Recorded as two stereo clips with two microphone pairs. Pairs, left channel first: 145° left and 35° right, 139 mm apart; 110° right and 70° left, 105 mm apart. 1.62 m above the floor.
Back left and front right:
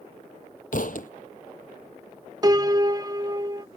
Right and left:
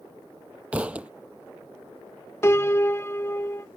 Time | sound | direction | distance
0.7 | a thud | 150° left | ?
2.4 | a piano | 75° right | ?